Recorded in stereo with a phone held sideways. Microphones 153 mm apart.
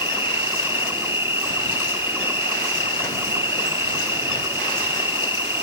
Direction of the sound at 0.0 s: 15° right (ahead or behind).